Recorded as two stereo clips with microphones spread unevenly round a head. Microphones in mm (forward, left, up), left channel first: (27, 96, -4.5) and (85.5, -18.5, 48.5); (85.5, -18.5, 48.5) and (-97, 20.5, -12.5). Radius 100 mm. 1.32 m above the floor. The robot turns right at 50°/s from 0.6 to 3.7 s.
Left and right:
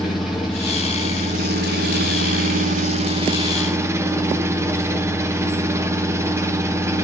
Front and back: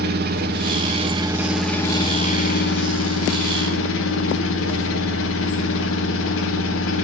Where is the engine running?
150° right, 1.1 m; by 7.0 s 5° left, 1.1 m.